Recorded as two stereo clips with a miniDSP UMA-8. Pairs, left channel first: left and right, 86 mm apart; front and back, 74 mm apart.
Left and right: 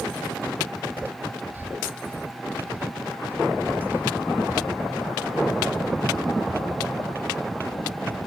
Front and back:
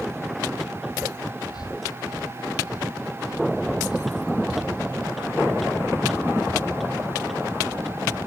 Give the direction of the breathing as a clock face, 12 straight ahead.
1 o'clock.